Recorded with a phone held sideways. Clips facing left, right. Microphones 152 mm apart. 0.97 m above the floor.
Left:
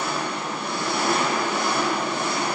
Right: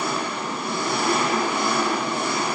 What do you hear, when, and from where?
0.0 s an engine running: 10° right (ahead or behind), 0.9 m